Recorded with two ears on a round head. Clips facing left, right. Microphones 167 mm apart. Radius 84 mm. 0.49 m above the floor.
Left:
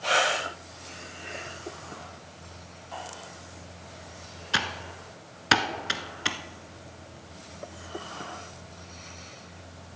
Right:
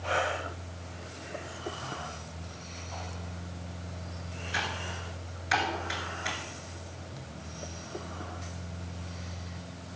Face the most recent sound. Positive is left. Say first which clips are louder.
# left 3 dB
turn(degrees=75)  # may be behind; listen again after turning